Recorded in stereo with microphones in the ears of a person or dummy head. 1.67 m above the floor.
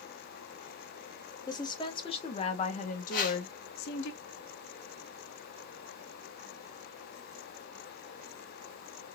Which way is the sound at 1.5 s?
25° left (ahead or behind).